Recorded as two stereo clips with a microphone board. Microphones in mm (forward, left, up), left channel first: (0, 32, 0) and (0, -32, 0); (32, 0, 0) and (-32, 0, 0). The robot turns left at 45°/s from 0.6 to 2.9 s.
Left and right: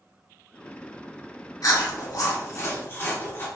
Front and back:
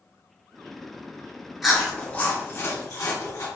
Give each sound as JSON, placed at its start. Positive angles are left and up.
{"t": 1.6, "sound": "chewing", "azimuth_deg": 95, "distance_m": 1.2}